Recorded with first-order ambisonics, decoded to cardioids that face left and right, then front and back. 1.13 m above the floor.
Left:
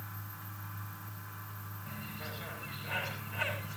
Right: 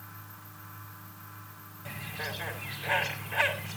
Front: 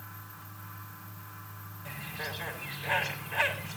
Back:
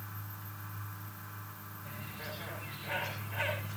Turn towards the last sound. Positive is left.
turn(degrees=-65)